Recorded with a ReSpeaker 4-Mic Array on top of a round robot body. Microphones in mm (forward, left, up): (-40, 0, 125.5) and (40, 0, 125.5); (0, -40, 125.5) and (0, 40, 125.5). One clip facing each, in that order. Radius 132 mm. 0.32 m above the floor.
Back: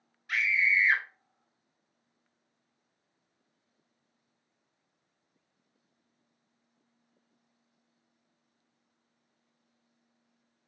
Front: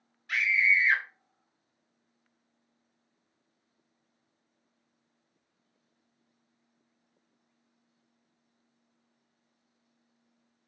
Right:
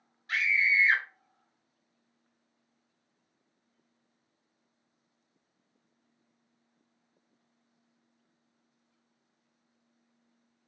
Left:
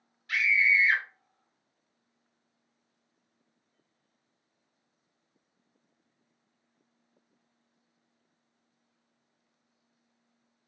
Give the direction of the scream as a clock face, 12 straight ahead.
3 o'clock.